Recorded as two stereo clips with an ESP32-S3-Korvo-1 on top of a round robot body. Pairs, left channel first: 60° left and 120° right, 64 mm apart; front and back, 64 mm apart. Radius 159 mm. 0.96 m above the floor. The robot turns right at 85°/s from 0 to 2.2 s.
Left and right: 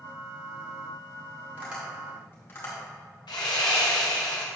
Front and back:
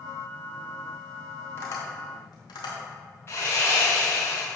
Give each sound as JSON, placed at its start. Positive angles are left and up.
{"t": 1.6, "sound": "tapping", "azimuth_deg": -50, "distance_m": 1.6}
{"t": 3.3, "sound": "sawing", "azimuth_deg": 55, "distance_m": 0.6}